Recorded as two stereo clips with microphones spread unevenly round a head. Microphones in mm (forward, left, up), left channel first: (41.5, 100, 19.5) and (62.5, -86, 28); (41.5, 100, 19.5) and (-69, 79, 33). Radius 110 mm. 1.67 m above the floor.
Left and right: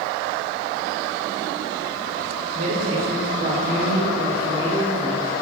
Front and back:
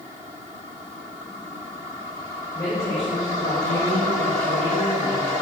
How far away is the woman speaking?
About 2.5 m.